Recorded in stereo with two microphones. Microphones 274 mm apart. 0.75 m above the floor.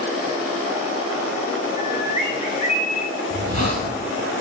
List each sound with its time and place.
1.8 s a bird: 30° left (ahead or behind), 2 m
3.3 s a hiss: 80° right, 4.5 m